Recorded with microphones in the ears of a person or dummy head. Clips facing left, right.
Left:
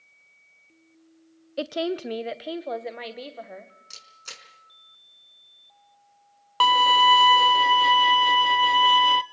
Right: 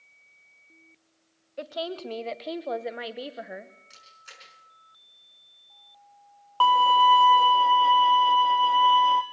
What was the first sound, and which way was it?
A woman speaking, 50° left (ahead or behind).